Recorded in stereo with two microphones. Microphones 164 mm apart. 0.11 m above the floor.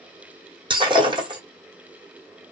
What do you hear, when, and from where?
0.7 s breaking glass: 30° right (ahead or behind), 2 m